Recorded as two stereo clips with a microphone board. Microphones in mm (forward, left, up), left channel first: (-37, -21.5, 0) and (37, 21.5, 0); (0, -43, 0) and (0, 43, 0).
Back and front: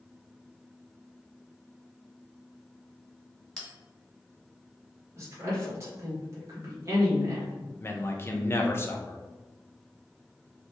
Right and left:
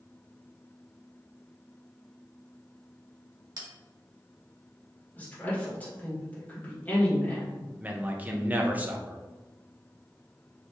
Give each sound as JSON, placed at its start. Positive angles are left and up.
{"t": 3.6, "sound": "a bell", "azimuth_deg": 125, "distance_m": 1.1}
{"t": 5.2, "sound": "a woman speaking", "azimuth_deg": -25, "distance_m": 1.4}
{"t": 7.8, "sound": "a man speaking", "azimuth_deg": 155, "distance_m": 0.5}